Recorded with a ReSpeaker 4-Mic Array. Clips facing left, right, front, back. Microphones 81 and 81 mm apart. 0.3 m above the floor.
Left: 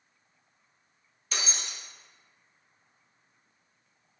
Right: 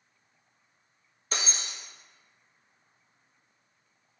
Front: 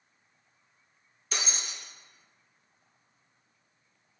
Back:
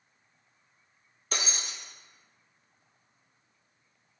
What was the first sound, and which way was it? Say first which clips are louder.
Breaking glass: right 1 dB, back 1 dB; 140° right.